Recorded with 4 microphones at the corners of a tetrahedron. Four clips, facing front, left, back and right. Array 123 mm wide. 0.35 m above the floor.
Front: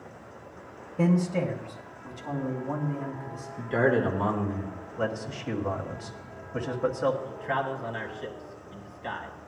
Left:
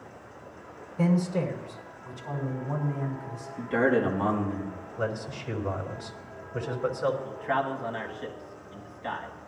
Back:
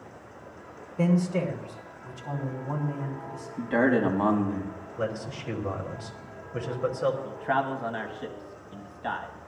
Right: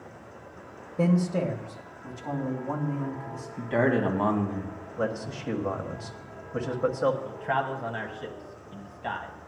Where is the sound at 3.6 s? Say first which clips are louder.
Even, back 1 dB; 145° right, 2.5 m.